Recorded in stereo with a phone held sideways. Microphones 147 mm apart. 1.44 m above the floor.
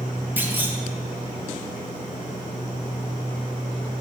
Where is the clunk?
15° right (ahead or behind), 0.7 m.